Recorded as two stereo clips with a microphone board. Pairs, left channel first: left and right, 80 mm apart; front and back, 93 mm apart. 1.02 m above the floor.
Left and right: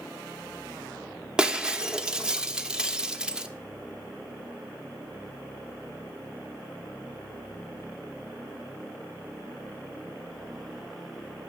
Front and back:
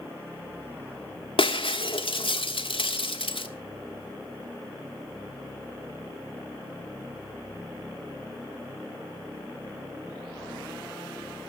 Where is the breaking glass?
10° right, 1.3 m.